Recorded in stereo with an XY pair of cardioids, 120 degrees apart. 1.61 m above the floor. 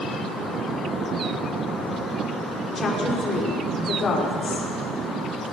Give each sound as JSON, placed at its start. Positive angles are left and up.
{"t": 2.8, "sound": "a woman speaking", "azimuth_deg": 35, "distance_m": 5.5}